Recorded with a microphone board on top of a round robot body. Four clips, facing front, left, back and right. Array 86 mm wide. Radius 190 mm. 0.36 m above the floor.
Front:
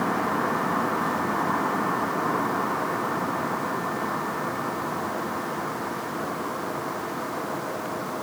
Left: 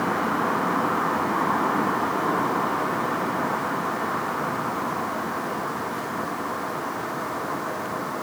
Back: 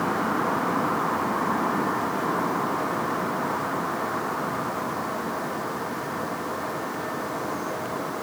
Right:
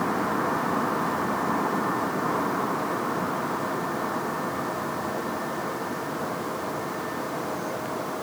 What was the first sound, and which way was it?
Only background noise.